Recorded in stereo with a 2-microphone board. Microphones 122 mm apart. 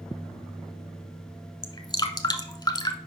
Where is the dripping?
35° left (ahead or behind), 0.8 m.